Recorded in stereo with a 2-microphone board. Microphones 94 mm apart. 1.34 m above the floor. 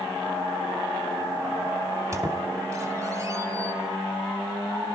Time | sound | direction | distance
2.1 | a squeak | 35° right (ahead or behind) | 1.2 m